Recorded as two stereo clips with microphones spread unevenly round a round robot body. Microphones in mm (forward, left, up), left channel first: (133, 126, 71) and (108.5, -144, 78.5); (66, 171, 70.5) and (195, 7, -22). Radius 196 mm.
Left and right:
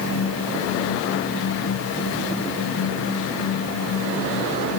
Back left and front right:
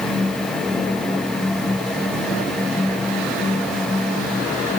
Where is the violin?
I don't hear a violin.